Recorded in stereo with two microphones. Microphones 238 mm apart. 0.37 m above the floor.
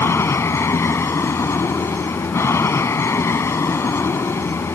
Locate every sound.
0.0 s an aircraft: 10° left (ahead or behind)